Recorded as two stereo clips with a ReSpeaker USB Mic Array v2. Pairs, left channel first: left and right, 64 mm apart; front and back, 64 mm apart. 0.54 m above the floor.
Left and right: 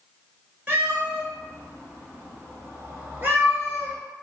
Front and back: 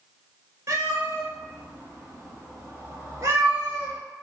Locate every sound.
0.7 s a cat meowing: 150° right, 1.0 m